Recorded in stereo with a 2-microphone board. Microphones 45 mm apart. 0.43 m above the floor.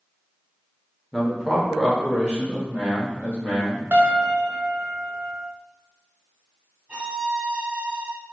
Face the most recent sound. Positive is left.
turn(degrees=-30)  # may be behind; listen again after turning